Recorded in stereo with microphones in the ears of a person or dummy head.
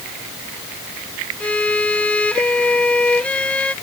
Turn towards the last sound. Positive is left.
turn(degrees=10)  # may be behind; listen again after turning